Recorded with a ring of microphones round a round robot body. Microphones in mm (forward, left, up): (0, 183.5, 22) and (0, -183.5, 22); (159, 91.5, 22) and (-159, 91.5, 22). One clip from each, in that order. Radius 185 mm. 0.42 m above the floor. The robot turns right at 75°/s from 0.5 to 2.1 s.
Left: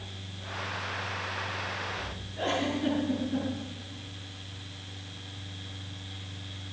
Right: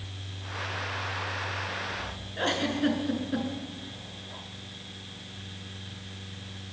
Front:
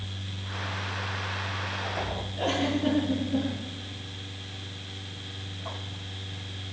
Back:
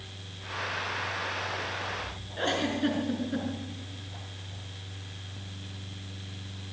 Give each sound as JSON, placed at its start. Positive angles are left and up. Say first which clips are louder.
{"t": 2.4, "sound": "a giggle", "louder": "right 2 dB, even", "azimuth_deg": -135, "distance_m": 6.5}